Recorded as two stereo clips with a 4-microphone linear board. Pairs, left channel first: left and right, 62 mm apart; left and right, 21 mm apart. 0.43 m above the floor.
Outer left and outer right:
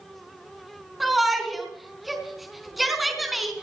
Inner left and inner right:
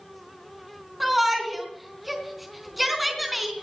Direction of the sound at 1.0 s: Centre (ahead or behind).